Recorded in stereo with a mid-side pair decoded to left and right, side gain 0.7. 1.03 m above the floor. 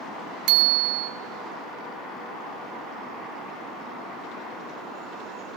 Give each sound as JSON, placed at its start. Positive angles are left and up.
{"t": 0.5, "sound": "a bicycle bell", "azimuth_deg": -65, "distance_m": 2.0}